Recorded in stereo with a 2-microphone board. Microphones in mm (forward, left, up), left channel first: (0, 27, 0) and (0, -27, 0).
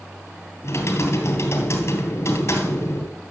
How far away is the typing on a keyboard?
About 3 m.